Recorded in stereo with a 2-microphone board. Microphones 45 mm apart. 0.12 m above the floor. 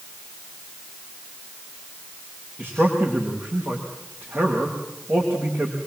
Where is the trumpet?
I don't hear a trumpet.